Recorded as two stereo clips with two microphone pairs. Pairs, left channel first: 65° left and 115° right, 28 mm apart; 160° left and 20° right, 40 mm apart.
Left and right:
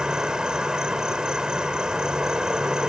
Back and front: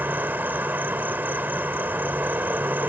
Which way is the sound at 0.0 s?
55° right.